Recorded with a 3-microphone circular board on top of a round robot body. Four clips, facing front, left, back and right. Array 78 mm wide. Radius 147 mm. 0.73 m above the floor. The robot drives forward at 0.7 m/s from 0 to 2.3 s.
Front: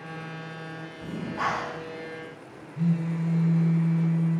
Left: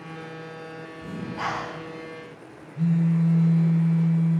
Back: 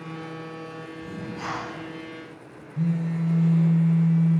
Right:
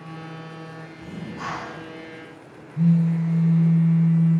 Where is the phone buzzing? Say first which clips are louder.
Right 2 dB, back 1 dB; 145° right, 4.5 m.